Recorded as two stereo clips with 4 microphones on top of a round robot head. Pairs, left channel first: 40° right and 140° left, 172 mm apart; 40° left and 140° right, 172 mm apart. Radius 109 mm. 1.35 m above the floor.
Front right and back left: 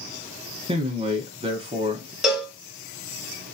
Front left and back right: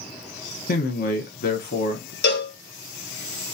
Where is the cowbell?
55° left, 1.5 m.